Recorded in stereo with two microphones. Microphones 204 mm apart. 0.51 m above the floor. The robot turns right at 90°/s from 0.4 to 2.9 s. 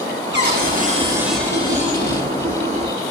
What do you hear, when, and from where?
0.3 s a cupboard door: 85° right, 1.8 m; by 2.3 s 85° left, 1.8 m